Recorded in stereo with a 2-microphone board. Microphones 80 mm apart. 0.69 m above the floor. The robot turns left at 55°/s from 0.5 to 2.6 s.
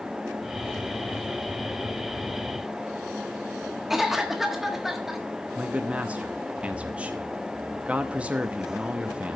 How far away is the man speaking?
About 0.7 m.